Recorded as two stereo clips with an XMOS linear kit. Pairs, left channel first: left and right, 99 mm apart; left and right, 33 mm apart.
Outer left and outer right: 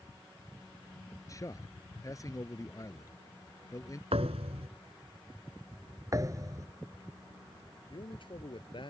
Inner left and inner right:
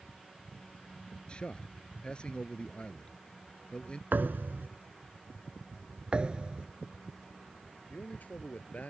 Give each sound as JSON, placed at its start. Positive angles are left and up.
{"t": 1.3, "sound": "a man speaking", "side_deg": 35}
{"t": 4.1, "sound": "a thud", "side_deg": -85}
{"t": 6.1, "sound": "a thud", "side_deg": -35}
{"t": 7.9, "sound": "a man speaking", "side_deg": 55}